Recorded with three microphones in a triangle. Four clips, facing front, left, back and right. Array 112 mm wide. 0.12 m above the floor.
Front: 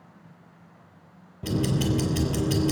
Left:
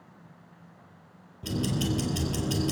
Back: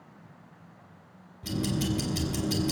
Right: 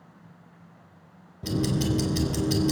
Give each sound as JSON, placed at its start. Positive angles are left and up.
{"t": 1.4, "sound": "ticking", "azimuth_deg": -15, "distance_m": 3.5}